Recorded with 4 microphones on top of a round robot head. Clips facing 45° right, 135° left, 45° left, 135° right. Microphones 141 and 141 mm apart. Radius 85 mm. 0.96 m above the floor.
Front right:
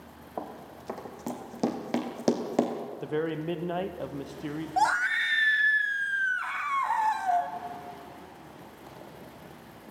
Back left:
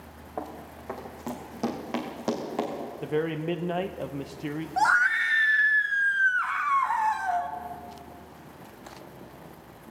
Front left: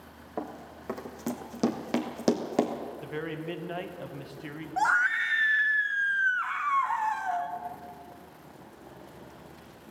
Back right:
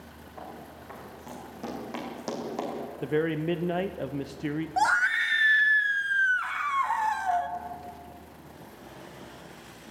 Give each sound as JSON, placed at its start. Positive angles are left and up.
{"t": 0.4, "sound": "running footsteps", "azimuth_deg": 40, "distance_m": 2.0}
{"t": 3.0, "sound": "a man speaking", "azimuth_deg": -140, "distance_m": 0.8}
{"t": 4.8, "sound": "a scream", "azimuth_deg": -100, "distance_m": 1.2}